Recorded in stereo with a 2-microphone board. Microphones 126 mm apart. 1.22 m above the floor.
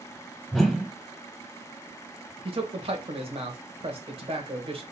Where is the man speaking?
50° right (ahead or behind), 1.4 m.